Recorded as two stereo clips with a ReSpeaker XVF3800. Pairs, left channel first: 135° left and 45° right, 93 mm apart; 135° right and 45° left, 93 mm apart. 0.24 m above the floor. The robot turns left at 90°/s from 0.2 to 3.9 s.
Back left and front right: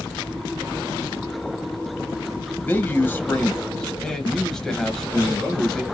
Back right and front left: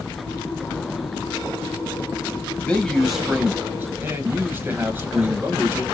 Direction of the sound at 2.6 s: 175° left.